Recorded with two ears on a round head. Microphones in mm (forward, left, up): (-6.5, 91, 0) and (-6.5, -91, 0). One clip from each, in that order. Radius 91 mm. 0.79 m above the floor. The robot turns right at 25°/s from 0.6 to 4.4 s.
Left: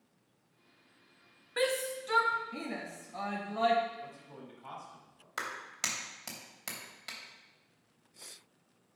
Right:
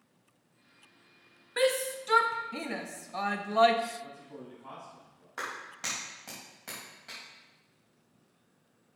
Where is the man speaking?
80° left, 4.5 m; by 5.3 s 70° left (ahead or behind), 4.5 m.